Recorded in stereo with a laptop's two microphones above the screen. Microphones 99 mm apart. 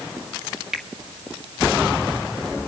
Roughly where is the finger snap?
Centre.